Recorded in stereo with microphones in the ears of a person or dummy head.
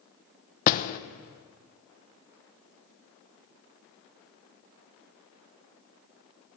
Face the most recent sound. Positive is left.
turn(degrees=40)  # may be behind; listen again after turning